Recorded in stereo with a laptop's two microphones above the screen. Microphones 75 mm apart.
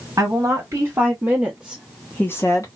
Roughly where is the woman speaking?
Right.